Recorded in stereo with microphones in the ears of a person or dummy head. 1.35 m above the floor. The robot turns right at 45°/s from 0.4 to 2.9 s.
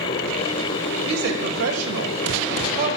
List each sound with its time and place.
1.1 s a woman speaking: 135° right, 1.4 m; by 3.0 s 50° right, 1.4 m